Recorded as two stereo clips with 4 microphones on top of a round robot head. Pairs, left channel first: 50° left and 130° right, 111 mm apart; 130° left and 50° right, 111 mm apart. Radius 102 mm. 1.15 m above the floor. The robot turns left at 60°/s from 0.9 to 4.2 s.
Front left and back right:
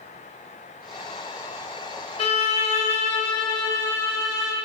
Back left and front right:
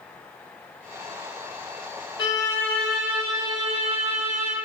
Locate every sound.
2.2 s a violin: 80° left, 0.5 m; by 4.5 s 40° right, 0.5 m